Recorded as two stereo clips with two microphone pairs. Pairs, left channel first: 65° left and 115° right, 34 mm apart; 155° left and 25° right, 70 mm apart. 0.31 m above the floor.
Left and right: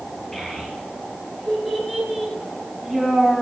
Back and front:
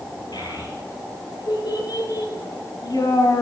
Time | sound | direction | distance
0.3 | a child speaking | 145° left | 5.5 m